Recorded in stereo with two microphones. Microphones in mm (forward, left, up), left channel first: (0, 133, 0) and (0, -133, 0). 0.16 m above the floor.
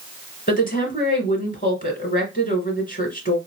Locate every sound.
0.5 s a woman speaking: 35° left (ahead or behind), 2 m